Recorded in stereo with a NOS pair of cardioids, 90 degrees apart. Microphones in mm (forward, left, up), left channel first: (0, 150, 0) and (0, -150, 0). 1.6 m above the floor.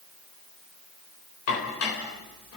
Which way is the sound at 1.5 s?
55° left.